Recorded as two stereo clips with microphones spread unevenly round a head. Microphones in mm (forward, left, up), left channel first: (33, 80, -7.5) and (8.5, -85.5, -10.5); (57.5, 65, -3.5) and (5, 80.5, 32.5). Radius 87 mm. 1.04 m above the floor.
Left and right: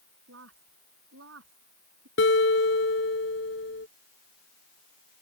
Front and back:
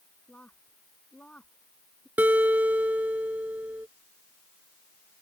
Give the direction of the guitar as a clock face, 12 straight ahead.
8 o'clock.